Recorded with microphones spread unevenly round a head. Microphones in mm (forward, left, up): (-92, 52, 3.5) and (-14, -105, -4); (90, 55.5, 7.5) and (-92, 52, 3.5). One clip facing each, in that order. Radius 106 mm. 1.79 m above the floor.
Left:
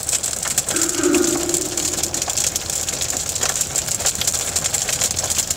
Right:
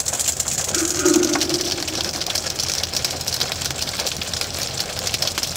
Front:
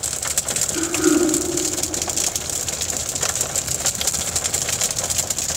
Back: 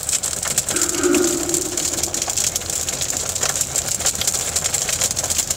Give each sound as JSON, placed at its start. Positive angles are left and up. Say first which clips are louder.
{"t": 0.7, "sound": "throat clearing", "louder": "even, even", "azimuth_deg": 170, "distance_m": 5.0}